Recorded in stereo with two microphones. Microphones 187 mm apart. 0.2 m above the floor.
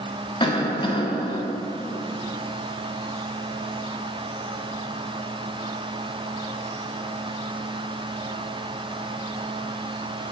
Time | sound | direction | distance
0.4 | a cough | 30° left (ahead or behind) | 1.1 m